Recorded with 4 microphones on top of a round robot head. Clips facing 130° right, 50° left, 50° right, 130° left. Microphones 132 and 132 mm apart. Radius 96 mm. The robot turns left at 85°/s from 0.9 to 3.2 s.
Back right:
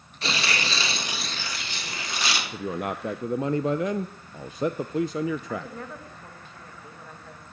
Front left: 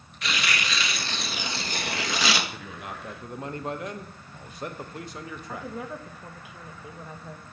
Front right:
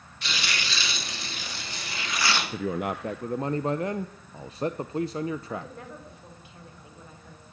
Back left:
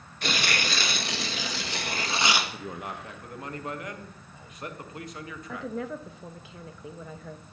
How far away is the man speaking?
About 0.6 m.